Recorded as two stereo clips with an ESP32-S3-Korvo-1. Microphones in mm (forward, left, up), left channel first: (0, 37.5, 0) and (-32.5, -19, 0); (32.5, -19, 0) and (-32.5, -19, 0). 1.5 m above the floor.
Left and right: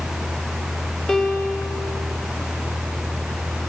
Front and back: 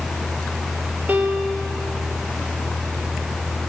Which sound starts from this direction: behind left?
A piano, at 1.1 s.